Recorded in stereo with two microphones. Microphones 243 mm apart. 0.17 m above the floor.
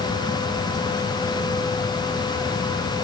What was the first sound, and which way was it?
Only background noise.